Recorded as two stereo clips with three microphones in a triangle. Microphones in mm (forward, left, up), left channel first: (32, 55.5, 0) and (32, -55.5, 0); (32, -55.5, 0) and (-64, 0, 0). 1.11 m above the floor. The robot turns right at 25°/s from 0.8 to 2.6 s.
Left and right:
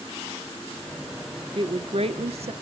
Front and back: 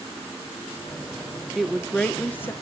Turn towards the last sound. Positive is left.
turn(degrees=-100)